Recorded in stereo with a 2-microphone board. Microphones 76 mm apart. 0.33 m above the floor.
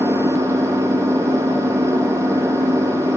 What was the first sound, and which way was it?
An engine running, 70° right (ahead or behind).